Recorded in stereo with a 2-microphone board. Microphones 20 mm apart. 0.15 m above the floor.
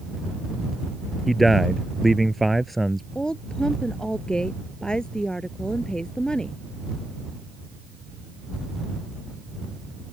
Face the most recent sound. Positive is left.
turn(degrees=40)  # may be behind; listen again after turning